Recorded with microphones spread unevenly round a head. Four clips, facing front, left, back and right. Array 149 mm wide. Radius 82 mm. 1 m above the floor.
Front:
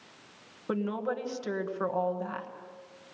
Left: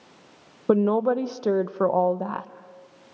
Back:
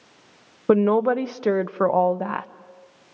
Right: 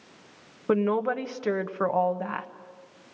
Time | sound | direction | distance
0.7 | a woman speaking | 150° left | 1.0 m